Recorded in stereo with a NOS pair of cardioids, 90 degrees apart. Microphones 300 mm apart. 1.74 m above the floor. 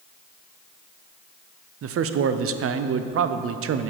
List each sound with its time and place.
1.8 s a man speaking: 50° right, 0.7 m